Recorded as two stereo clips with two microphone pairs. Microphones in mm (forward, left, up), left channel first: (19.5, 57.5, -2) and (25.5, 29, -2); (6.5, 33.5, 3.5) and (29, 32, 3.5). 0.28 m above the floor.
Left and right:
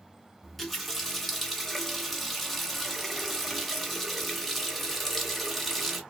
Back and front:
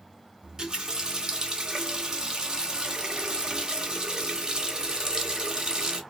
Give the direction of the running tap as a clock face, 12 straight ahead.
11 o'clock.